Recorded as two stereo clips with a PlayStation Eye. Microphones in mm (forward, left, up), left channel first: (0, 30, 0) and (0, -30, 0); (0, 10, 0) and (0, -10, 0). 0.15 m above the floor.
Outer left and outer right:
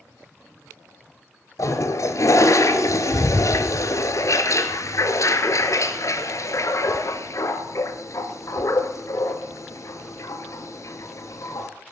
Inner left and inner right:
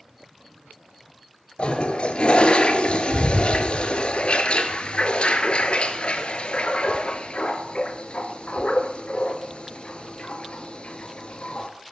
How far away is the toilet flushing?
About 0.9 m.